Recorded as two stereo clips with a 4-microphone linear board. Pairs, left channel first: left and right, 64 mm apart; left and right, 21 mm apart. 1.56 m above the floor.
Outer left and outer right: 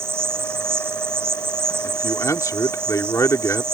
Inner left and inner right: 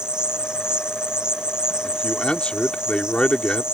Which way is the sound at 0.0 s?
45° right (ahead or behind).